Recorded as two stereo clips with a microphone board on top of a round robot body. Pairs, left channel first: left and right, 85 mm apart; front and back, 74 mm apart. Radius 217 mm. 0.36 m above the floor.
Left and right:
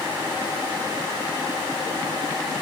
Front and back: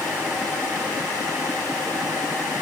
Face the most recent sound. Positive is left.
No sound to turn to.